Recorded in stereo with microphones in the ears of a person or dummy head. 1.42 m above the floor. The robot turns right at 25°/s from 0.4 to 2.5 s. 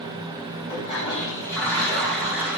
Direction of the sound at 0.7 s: 140° left.